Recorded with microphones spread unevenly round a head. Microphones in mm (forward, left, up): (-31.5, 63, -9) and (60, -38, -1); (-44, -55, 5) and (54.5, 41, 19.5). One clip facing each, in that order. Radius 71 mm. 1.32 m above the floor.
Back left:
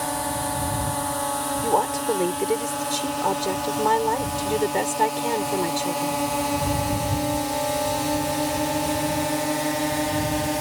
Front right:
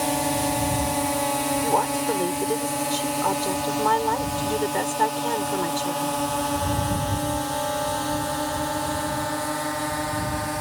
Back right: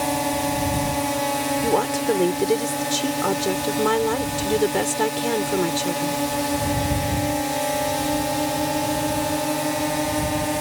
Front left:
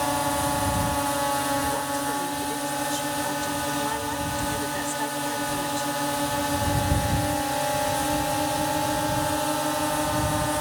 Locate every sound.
0.0 s a drone: 90° right; by 10.6 s 170° left
1.6 s a woman speaking: 150° right